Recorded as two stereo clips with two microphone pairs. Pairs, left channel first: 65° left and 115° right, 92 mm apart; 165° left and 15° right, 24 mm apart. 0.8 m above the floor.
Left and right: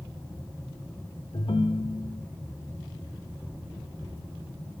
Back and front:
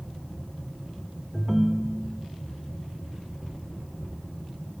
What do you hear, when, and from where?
1.3 s a ringtone: 65° left, 0.7 m